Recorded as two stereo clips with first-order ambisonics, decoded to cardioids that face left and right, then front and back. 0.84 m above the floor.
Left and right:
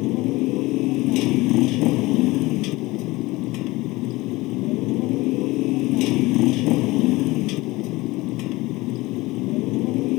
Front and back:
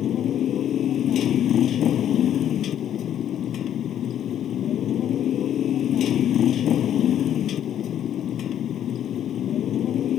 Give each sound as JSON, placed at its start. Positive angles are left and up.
{"t": 0.0, "sound": "a motorcycle", "azimuth_deg": 55}